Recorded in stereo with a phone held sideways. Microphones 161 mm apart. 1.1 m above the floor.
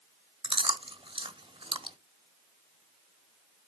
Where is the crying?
I don't hear crying.